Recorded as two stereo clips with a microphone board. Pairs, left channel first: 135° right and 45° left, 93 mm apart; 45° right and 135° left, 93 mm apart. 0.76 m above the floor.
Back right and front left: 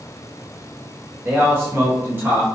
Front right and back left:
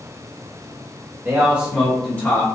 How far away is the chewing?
No chewing in this recording.